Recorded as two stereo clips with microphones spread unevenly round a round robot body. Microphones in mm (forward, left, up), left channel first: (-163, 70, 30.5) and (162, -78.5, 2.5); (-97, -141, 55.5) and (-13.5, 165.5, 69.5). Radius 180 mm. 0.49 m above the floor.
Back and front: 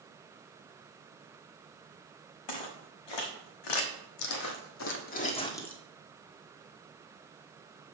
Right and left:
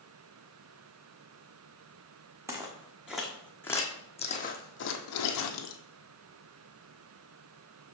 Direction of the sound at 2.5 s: 155° left.